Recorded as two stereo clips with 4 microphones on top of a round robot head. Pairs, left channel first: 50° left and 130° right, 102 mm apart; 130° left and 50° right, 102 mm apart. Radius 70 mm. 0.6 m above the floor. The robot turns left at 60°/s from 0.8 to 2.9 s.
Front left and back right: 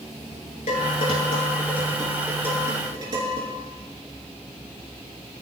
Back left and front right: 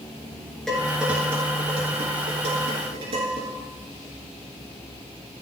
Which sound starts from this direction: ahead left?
Dishes clattering, at 0.7 s.